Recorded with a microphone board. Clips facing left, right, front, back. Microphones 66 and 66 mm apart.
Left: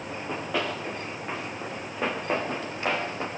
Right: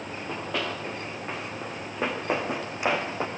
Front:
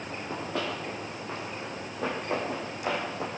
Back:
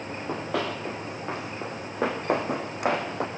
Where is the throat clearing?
I don't hear throat clearing.